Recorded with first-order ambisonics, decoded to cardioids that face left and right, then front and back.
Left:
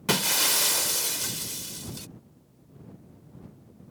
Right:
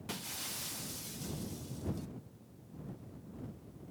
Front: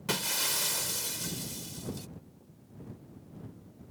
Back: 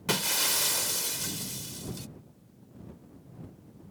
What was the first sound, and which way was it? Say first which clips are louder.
Breaking glass: left 19 dB, back 3 dB; 100° left.